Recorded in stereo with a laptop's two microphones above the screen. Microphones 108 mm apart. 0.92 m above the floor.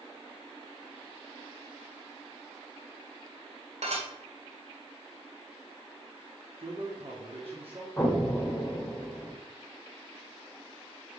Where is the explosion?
5° left (ahead or behind), 2 m.